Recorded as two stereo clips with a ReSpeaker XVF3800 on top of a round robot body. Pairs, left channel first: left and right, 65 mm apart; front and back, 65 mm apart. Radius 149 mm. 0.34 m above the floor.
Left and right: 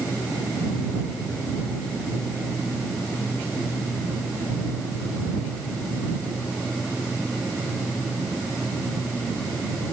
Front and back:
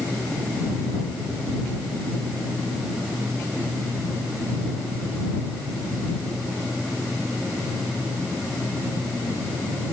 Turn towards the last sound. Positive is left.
No sound to turn to.